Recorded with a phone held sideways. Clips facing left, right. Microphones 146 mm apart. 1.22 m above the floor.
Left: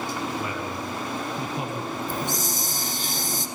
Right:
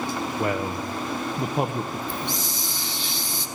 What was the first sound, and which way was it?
A man speaking, 55° right (ahead or behind).